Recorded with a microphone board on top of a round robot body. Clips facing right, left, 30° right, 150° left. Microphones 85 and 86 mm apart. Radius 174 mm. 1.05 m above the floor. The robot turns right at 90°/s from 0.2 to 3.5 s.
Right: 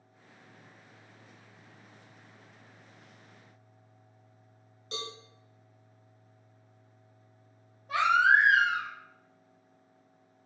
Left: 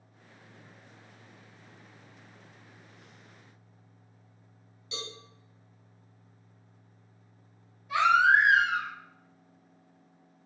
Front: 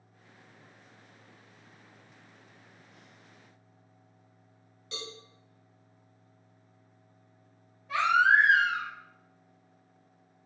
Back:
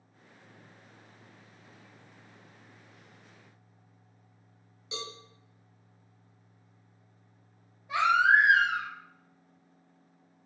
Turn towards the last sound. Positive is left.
turn(degrees=-140)